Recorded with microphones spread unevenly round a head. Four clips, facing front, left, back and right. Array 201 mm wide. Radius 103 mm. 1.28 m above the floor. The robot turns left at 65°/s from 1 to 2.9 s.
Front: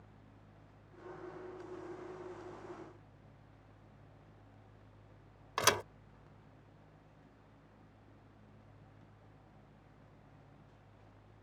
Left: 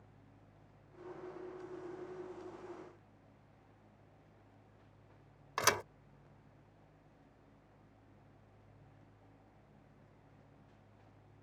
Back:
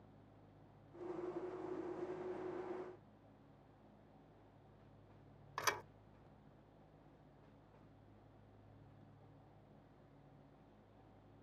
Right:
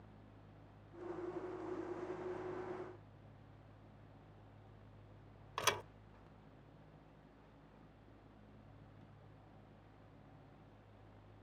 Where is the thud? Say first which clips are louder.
Left 5 dB, front 9 dB; 35° left.